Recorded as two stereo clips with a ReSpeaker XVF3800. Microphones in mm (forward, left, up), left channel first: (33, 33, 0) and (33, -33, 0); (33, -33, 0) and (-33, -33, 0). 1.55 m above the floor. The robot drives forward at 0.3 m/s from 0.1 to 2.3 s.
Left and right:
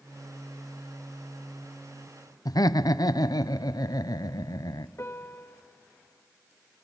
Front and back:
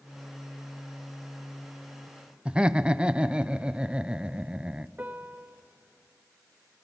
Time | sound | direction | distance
2.5 | laughter | 105° left | 0.6 m
5.0 | a piano | 125° left | 1.4 m